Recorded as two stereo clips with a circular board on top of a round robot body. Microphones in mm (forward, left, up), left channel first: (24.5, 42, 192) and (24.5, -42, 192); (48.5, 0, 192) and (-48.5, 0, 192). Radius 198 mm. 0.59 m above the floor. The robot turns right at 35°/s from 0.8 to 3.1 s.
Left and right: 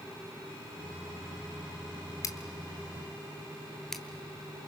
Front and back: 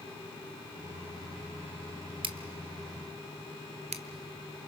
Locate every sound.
2.2 s scissors: 145° left, 1.2 m; by 4.0 s 175° left, 1.2 m